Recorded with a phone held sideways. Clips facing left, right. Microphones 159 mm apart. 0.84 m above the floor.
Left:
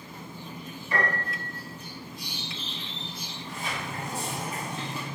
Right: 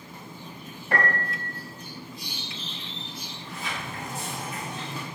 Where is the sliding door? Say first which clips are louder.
Left 1 dB; 30° left (ahead or behind), 2.0 m.